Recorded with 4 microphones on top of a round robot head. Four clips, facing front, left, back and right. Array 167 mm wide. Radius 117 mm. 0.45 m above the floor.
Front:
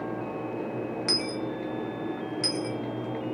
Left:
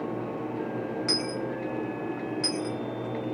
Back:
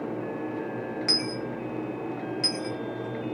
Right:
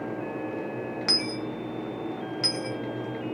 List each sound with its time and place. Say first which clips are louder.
1.1 s a dropped coin: left 1 dB, even; 80° right, 0.6 m